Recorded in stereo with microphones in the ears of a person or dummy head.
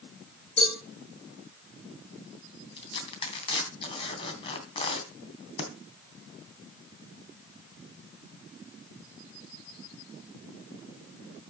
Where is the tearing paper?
30° left (ahead or behind), 3 m.